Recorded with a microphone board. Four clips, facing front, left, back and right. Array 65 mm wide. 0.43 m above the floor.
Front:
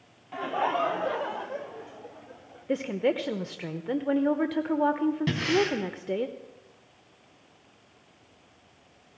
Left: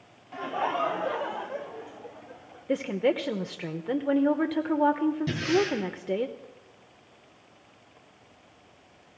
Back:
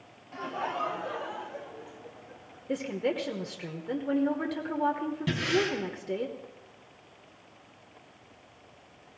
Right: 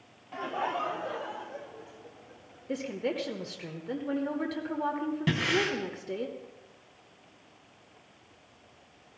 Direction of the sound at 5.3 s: 55° right.